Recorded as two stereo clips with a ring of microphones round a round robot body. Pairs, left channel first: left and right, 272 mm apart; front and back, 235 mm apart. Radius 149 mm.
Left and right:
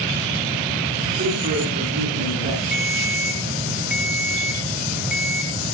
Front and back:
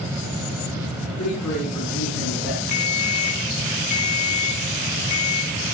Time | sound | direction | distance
1.2 | a man speaking | 30° right | 7.5 m
2.7 | a ringtone | 5° right | 4.5 m